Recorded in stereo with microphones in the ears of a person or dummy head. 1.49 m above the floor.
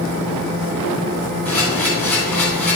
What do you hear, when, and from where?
1.4 s a camera shutter: 10° left (ahead or behind), 3 m